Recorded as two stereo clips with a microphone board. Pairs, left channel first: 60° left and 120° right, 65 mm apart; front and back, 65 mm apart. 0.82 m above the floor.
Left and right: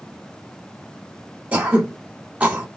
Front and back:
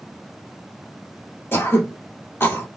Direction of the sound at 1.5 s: 55° right.